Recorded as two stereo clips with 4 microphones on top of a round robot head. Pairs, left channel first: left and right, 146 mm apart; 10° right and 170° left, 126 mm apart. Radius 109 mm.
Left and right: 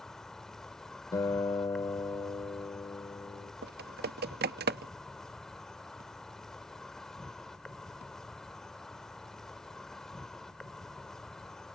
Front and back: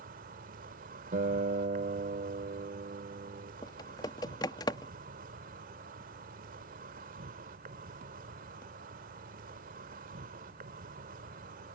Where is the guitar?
155° left.